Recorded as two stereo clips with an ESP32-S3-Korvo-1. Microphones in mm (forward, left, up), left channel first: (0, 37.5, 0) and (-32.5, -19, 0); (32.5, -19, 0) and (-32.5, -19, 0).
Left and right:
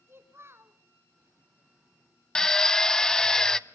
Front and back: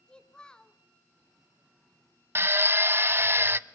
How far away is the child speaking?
About 1.7 m.